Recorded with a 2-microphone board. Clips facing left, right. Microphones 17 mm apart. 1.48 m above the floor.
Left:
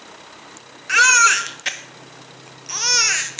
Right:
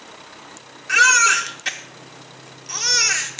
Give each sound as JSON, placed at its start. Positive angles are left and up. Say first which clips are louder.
{"t": 0.9, "sound": "a baby crying", "louder": "left 1 dB", "side_deg": 15, "distance_m": 0.6}